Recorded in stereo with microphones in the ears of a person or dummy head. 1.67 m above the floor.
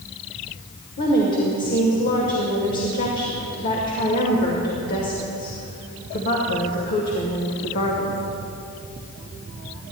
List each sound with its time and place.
1.0 s a woman speaking: 45° left (ahead or behind), 1.2 m